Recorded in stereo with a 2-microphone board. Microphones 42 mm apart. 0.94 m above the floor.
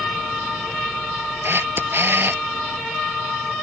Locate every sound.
1.4 s a camera shutter: 65° right (ahead or behind)